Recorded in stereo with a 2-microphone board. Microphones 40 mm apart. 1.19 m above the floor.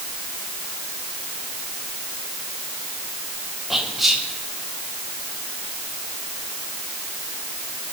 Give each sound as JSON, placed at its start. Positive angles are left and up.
{"t": 3.7, "sound": "whispering", "side_deg": -5, "distance_m": 4.5}